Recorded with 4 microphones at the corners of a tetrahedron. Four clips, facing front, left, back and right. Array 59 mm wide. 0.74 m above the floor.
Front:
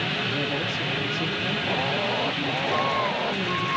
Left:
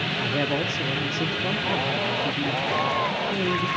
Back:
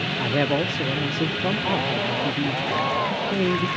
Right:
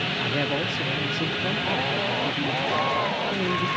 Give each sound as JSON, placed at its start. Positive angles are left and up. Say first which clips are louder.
{"t": 0.2, "sound": "a man speaking", "louder": "left 2 dB, back 4 dB", "azimuth_deg": 175, "distance_m": 1.1}